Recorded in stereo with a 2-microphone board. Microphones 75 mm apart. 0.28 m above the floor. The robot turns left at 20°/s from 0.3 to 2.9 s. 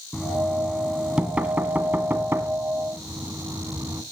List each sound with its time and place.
0.1 s knocking: centre (ahead or behind), 1.8 m; by 4.0 s 40° right (ahead or behind), 1.8 m